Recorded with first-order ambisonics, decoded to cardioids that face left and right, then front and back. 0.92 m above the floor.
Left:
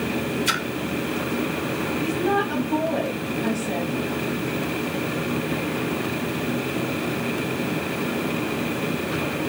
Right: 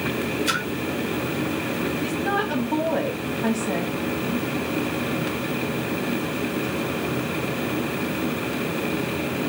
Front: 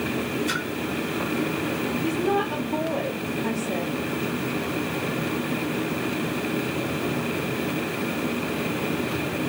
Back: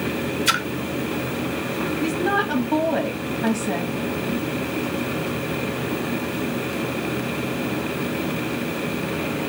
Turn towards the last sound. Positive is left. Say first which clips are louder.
# left 3 dB, back 3 dB
turn(degrees=-160)